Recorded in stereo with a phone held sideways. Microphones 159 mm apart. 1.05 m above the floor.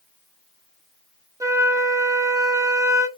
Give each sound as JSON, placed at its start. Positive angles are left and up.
{"t": 1.4, "sound": "a flute", "side_deg": -20, "distance_m": 0.5}